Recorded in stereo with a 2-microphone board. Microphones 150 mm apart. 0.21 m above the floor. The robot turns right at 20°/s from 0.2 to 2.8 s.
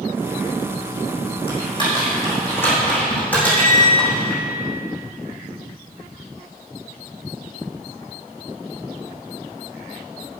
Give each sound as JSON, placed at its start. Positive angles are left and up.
{"t": 1.5, "sound": "typing on a keyboard", "side_deg": 35, "distance_m": 4.5}
{"t": 3.3, "sound": "a squeak", "side_deg": 55, "distance_m": 3.5}